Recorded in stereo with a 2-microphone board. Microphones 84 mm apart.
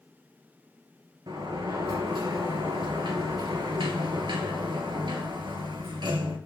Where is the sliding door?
70° right (ahead or behind), 2.5 m.